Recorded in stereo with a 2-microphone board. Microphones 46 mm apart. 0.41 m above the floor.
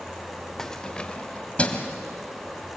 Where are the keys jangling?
10° left (ahead or behind), 0.7 m; by 1.9 s 30° left (ahead or behind), 2 m.